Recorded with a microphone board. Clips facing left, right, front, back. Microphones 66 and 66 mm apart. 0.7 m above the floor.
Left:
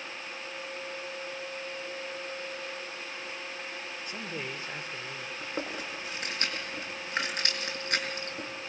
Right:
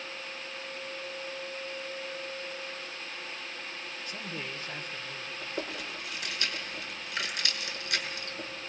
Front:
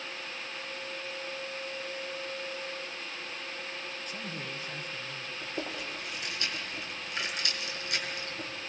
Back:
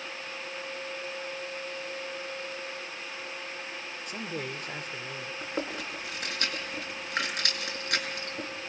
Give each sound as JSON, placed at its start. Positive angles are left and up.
{"t": 4.1, "sound": "a man speaking", "azimuth_deg": 155, "distance_m": 1.8}
{"t": 5.4, "sound": "chewing", "azimuth_deg": 140, "distance_m": 6.5}